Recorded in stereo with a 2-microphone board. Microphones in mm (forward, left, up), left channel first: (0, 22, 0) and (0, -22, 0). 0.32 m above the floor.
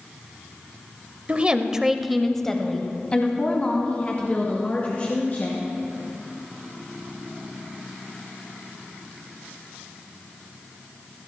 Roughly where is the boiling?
I don't hear boiling.